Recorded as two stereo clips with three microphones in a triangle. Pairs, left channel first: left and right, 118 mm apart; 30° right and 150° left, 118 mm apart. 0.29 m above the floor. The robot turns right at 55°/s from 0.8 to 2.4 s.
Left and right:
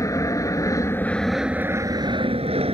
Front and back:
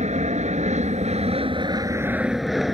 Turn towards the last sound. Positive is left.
turn(degrees=-120)